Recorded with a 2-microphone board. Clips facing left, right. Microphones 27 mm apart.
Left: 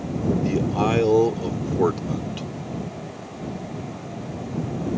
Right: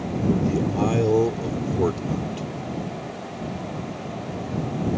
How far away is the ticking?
No ticking in this recording.